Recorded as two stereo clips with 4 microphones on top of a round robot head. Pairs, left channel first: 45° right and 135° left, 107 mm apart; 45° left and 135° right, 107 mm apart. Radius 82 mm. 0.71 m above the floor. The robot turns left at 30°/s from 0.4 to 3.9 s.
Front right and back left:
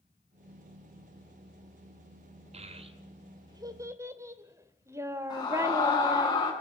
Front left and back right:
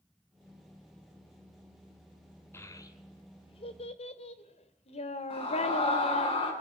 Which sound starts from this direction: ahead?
A scream, at 5.3 s.